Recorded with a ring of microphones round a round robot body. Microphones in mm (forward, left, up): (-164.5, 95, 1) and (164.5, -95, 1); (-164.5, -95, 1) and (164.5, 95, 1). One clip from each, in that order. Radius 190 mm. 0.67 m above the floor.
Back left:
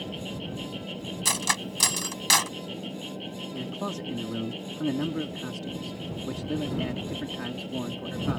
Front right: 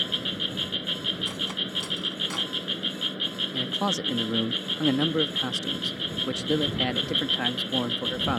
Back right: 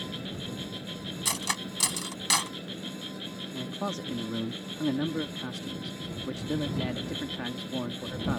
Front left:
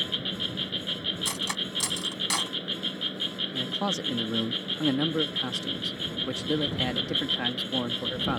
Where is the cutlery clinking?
130° left.